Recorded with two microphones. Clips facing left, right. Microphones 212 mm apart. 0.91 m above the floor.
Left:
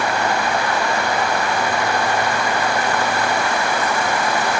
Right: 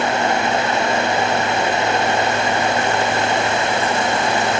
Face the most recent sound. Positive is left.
No sound to turn to.